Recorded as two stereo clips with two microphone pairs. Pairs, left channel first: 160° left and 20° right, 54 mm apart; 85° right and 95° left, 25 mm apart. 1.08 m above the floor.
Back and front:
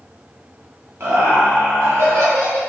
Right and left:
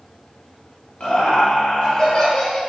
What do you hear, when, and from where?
1.0 s laughter: 50° right, 1.0 m; by 2.6 s 25° right, 1.9 m